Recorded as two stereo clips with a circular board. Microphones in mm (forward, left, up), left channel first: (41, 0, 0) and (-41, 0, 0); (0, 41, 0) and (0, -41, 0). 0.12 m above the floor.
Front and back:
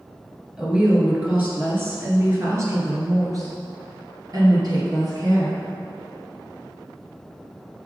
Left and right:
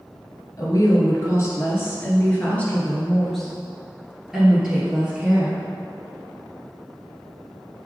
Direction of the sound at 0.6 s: 105° left.